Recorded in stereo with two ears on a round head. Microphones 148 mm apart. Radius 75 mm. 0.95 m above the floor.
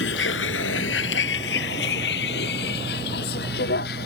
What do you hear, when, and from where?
0.0 s a vehicle: 85° left; by 4.1 s 65° left (ahead or behind)